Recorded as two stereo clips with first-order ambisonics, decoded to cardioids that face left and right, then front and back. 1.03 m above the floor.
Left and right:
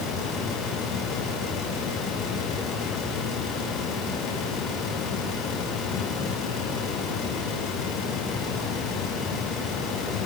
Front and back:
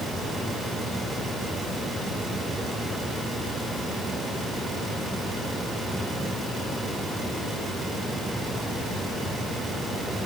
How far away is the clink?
No clink in this recording.